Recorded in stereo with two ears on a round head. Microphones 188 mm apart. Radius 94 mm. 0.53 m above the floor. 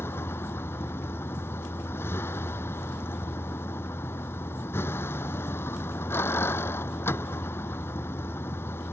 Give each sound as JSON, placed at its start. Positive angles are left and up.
{"t": 0.0, "sound": "a vehicle", "side_deg": 10}